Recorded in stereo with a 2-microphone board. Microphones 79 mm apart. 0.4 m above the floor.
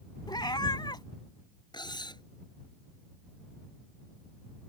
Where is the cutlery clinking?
70° left (ahead or behind).